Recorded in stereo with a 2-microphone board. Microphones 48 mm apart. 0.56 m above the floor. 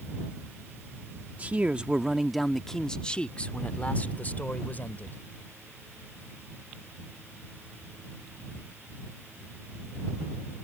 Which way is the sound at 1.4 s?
35° right (ahead or behind).